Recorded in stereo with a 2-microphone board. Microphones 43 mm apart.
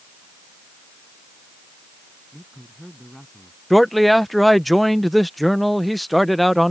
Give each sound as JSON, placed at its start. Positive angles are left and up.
{"t": 2.3, "sound": "a man speaking", "side_deg": 5}
{"t": 3.7, "sound": "a man speaking", "side_deg": 0}